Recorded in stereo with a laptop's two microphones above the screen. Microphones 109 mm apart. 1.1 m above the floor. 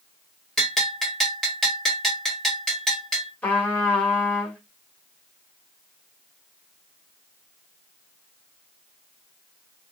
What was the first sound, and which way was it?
A bell, 5° left (ahead or behind).